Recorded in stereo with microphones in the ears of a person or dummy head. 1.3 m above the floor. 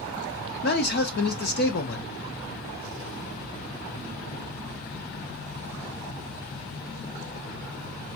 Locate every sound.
0.6 s a man speaking: 50° left (ahead or behind), 1.0 m